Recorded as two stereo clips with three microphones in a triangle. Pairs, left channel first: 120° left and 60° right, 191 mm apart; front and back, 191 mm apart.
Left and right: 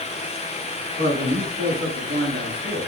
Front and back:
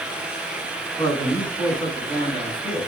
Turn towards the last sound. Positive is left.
turn(degrees=-65)